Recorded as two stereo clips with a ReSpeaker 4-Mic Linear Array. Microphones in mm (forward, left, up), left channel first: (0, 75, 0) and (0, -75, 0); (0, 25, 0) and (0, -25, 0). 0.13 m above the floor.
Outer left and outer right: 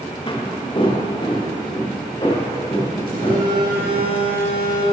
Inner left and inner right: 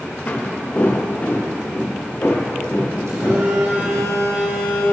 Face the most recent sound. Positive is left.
turn(degrees=-75)  # may be behind; listen again after turning